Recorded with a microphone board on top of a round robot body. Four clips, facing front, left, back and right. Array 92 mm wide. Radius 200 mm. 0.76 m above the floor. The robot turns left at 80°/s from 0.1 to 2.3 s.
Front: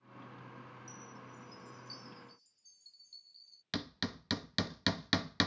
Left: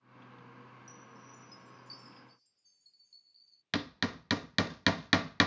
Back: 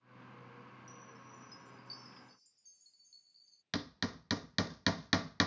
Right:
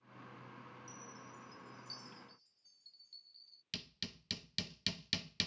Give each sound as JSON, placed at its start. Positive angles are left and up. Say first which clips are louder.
{"t": 0.9, "sound": "a chime", "louder": "even, front 3 dB", "azimuth_deg": 0}
{"t": 3.7, "sound": "hammering", "louder": "left 16 dB, even", "azimuth_deg": 95}